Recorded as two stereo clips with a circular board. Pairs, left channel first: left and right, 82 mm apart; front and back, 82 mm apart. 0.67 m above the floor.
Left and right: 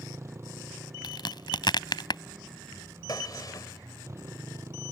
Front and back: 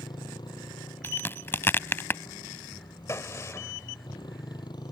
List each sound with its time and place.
0.0 s a motorcycle: 30° right
1.0 s a crack: 60° left
3.1 s a gunshot: 50° left